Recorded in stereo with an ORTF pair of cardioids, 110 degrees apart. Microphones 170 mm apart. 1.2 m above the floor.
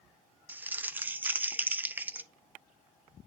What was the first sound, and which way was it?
Crumpling, 10° right.